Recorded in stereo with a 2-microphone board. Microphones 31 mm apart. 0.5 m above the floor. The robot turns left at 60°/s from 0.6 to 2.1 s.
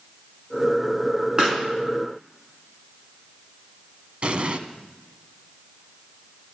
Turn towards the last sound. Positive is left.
turn(degrees=-40)  # may be behind; listen again after turning